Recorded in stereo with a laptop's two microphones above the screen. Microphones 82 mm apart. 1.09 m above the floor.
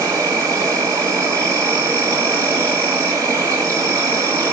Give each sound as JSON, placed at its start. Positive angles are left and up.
{"t": 0.0, "sound": "an insect", "side_deg": -40, "distance_m": 1.2}